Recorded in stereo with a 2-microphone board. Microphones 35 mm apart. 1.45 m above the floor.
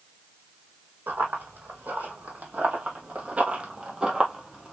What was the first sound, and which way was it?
Running footsteps, 60° right (ahead or behind).